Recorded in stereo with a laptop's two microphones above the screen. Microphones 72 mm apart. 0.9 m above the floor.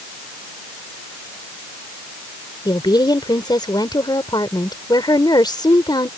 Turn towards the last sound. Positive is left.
turn(degrees=80)